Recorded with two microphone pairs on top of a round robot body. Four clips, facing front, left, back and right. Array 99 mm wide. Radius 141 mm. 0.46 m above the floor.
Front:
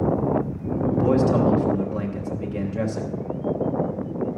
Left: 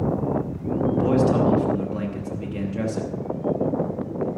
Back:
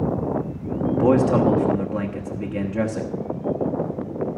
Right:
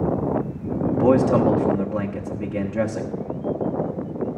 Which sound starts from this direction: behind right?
A man speaking, at 0.9 s.